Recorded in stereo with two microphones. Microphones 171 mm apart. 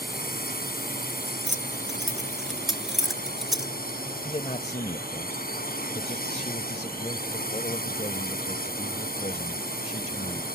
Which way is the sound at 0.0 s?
60° left (ahead or behind).